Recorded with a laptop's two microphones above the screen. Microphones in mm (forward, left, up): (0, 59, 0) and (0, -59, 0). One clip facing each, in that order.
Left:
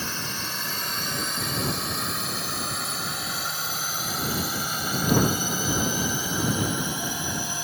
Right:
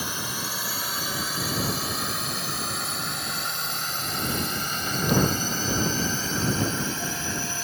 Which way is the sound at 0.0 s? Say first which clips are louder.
Right 1 dB; 10° right (ahead or behind).